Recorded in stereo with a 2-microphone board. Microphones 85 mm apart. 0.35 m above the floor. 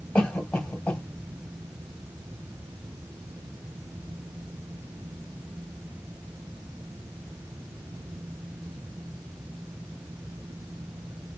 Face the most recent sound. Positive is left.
turn(degrees=10)  # may be behind; listen again after turning